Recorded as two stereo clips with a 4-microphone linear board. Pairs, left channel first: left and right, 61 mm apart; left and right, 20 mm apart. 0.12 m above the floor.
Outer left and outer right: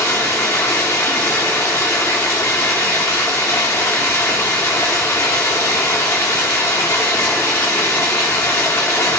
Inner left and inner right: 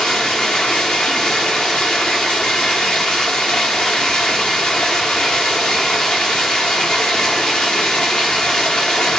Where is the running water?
50° left (ahead or behind), 1.1 m.